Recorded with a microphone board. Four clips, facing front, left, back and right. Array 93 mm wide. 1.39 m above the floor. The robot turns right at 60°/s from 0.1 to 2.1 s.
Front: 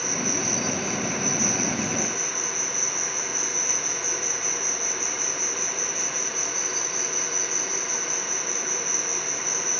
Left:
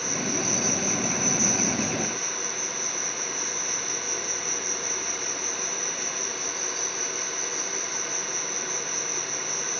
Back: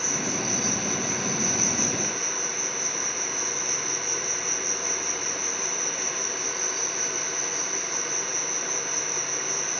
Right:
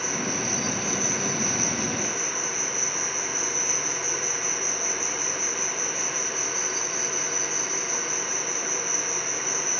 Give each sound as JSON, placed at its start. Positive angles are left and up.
{"t": 0.0, "sound": "an insect", "azimuth_deg": 30, "distance_m": 4.5}